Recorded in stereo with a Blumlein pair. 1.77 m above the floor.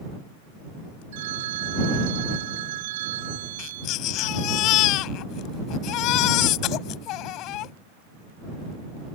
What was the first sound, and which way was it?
A phone ringing, 55° right.